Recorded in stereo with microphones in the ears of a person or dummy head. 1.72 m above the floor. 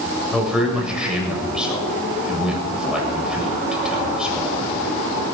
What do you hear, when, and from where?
0.3 s a man speaking: 5° right (ahead or behind), 7.5 m